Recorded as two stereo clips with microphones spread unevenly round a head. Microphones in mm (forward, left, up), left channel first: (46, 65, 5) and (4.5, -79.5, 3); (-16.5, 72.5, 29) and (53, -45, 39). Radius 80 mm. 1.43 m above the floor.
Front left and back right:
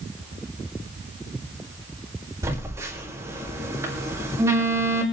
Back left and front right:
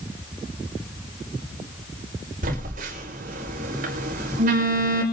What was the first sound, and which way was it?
A phone buzzing, 35° right.